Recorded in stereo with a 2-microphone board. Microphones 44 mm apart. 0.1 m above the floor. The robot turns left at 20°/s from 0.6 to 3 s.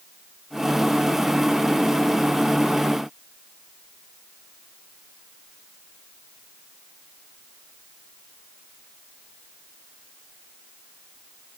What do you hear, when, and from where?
Only background noise.